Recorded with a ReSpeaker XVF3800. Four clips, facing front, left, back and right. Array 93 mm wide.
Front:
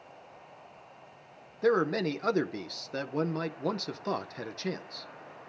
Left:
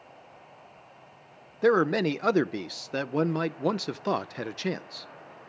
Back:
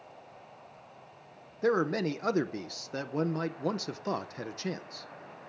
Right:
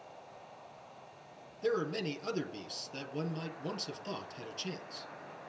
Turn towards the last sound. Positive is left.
turn(degrees=95)